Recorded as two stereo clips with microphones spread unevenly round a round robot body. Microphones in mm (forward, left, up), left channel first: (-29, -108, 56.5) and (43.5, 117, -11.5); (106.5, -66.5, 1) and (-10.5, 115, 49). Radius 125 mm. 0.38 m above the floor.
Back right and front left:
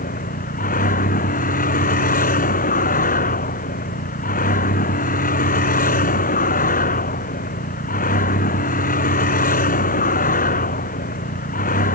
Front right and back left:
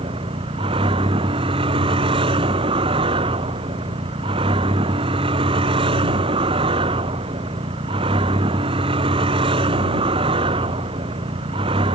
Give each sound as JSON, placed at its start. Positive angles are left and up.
{"t": 0.0, "sound": "a vehicle", "azimuth_deg": -165}